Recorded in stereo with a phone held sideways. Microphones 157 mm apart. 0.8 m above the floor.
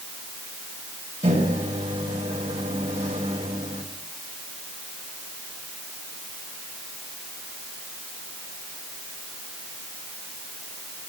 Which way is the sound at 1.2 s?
50° right (ahead or behind).